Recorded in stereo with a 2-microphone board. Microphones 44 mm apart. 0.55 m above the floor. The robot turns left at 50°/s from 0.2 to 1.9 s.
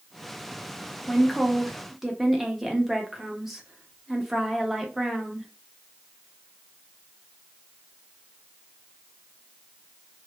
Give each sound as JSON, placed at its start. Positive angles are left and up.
{"t": 1.1, "sound": "a woman speaking", "side_deg": 10, "distance_m": 0.6}